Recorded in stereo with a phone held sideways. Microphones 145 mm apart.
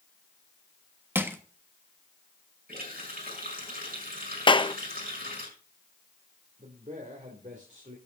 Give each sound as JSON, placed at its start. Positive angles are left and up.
{"t": 1.1, "sound": "crushing", "side_deg": -15, "distance_m": 1.4}
{"t": 2.7, "sound": "a running tap", "side_deg": -80, "distance_m": 6.0}
{"t": 4.5, "sound": "a clap", "side_deg": 35, "distance_m": 0.6}
{"t": 6.6, "sound": "a man speaking", "side_deg": -55, "distance_m": 2.5}